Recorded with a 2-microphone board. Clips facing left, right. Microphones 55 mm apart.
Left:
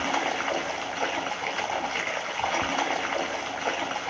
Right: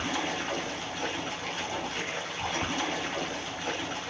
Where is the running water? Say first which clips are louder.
Left 5 dB; 60° left (ahead or behind), 2 m.